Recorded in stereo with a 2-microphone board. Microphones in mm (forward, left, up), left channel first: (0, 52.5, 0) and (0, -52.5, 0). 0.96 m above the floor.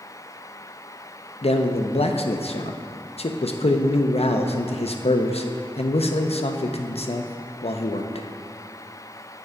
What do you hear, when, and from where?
1.4 s a man speaking: 75° left (ahead or behind), 0.6 m